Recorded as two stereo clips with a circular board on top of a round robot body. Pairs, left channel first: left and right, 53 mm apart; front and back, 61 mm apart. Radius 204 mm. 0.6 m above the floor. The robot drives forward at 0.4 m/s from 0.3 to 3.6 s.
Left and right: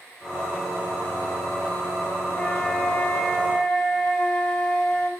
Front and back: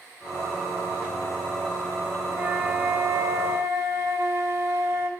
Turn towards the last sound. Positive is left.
turn(degrees=155)